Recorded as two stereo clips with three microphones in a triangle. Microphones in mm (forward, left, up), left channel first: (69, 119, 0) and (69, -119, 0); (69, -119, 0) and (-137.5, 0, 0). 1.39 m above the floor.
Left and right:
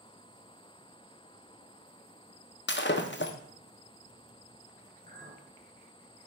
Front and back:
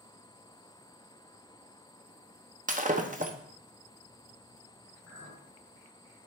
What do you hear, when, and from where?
2.7 s breaking glass: 105° left, 0.7 m
5.1 s a clink: 40° right, 3.5 m